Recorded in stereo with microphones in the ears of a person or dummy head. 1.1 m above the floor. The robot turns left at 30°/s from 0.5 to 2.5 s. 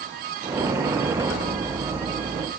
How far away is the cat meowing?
I don't hear a cat meowing.